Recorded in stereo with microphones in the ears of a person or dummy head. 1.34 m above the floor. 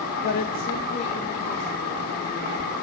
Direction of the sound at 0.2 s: 55° left (ahead or behind).